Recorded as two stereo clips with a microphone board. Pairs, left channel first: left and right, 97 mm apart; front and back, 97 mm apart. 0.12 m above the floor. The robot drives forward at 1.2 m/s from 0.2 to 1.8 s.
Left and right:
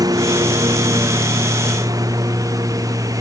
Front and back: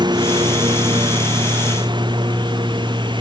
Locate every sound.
0.0 s a lawn mower: 140° right; by 3.2 s 145° right